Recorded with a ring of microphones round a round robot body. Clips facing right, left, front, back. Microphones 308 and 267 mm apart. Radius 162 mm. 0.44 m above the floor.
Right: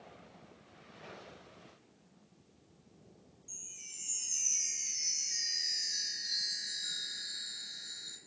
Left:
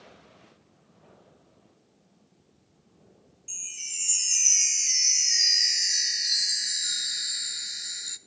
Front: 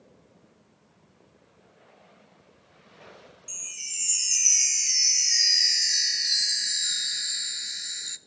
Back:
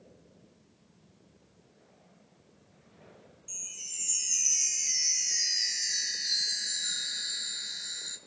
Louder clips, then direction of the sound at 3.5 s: Left 1 dB, front 2 dB; 50° left.